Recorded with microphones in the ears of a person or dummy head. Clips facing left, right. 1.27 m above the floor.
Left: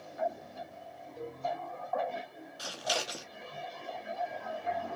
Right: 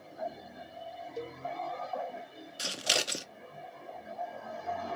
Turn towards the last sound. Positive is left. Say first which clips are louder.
# even
turn(degrees=-30)  # may be behind; listen again after turning